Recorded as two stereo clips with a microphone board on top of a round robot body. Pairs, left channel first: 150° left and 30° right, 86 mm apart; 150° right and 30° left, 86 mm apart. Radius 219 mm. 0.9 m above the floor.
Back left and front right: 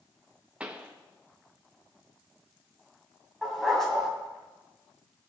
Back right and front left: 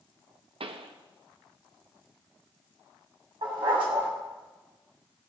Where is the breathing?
No breathing in this recording.